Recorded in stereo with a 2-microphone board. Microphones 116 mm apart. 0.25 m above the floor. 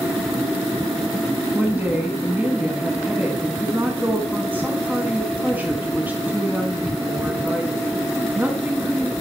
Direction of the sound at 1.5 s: 15° right (ahead or behind).